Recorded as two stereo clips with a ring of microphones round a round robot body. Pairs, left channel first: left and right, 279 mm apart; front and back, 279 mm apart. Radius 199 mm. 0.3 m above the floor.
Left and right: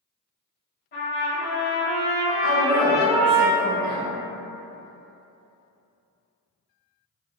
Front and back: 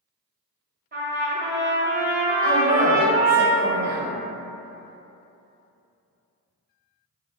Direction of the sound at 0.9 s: 140° left.